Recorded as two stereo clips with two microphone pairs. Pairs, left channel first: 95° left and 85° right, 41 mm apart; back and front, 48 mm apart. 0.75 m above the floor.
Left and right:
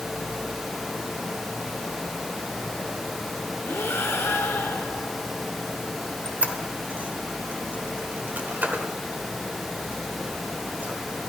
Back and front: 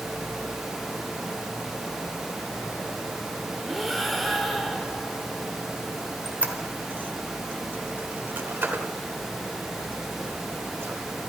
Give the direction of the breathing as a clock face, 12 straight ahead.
9 o'clock.